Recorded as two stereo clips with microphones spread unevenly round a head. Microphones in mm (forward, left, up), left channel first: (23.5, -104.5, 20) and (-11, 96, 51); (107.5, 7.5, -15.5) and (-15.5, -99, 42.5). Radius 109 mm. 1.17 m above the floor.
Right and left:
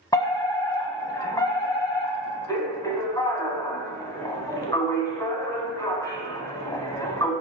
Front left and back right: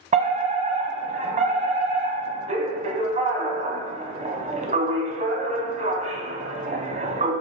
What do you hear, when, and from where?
0.1 s a fire alarm: 100° right, 1.1 m